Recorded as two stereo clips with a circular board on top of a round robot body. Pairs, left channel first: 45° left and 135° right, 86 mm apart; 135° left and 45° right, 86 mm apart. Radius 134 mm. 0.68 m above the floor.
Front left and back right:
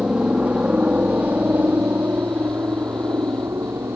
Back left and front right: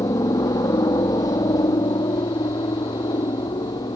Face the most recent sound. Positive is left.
turn(degrees=165)